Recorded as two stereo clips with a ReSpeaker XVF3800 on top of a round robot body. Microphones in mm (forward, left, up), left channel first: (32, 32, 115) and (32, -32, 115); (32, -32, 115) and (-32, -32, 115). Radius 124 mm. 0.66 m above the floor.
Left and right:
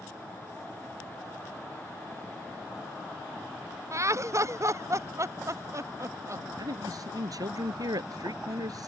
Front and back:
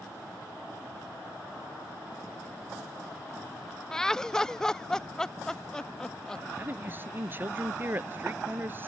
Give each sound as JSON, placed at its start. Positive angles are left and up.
{"t": 3.9, "sound": "laughter", "azimuth_deg": -80}
{"t": 6.6, "sound": "a man speaking", "azimuth_deg": -120}